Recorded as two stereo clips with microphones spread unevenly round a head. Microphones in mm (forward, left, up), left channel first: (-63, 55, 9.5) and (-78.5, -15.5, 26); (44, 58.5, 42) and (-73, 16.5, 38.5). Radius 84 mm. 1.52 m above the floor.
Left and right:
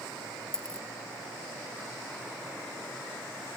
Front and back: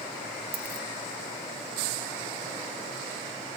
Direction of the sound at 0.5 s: 170° left.